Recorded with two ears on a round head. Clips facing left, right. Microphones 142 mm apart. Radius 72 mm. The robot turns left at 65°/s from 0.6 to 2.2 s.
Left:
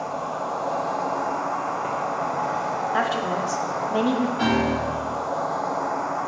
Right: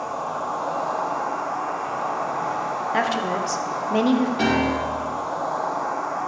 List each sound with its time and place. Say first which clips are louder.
0.0 s an insect: even; 155° left, 2.5 m; by 6.3 s 50° left, 2.5 m
2.9 s a woman speaking: right 2 dB; 20° right (ahead or behind), 0.6 m
4.4 s a piano: right 1 dB; 50° right (ahead or behind), 1.4 m